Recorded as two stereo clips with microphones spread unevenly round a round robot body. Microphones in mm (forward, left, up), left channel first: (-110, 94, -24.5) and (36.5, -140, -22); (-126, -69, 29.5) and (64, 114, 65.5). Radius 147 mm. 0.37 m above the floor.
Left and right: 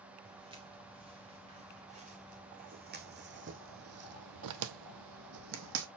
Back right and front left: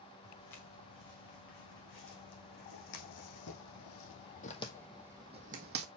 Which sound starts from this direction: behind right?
Footsteps, at 0.2 s.